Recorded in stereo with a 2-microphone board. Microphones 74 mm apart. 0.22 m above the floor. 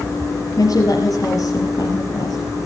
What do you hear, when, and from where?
0.6 s a woman speaking: 50° left (ahead or behind), 5 m